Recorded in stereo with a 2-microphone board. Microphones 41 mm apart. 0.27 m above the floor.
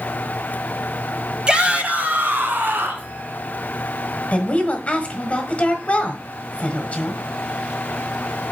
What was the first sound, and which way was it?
A shout, 20° right (ahead or behind).